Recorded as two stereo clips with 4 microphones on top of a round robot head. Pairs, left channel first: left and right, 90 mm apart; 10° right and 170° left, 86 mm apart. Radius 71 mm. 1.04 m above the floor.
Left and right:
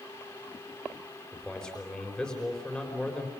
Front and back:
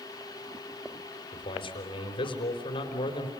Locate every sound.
1.3 s a man speaking: 5° left, 4.5 m